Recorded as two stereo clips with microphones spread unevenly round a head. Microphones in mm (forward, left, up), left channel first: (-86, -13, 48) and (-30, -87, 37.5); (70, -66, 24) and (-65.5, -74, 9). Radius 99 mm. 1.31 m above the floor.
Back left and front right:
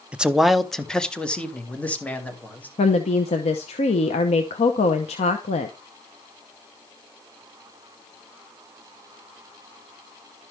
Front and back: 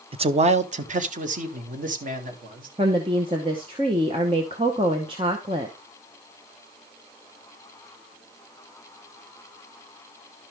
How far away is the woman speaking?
About 0.7 m.